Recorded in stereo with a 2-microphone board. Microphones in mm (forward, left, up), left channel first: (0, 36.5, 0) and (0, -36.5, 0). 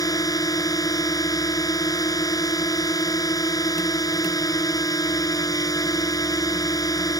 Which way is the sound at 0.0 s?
55° left (ahead or behind).